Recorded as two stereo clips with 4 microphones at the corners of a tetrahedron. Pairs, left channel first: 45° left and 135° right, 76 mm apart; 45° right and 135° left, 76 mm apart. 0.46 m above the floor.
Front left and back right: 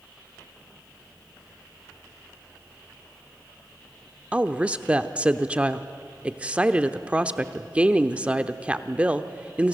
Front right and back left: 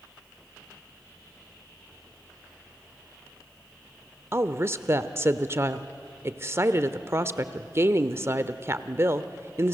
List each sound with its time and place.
4.3 s a woman speaking: 160° left, 0.9 m